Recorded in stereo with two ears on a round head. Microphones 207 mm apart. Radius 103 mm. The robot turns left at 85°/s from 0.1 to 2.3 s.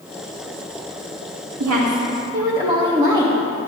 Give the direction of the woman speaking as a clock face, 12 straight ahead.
3 o'clock.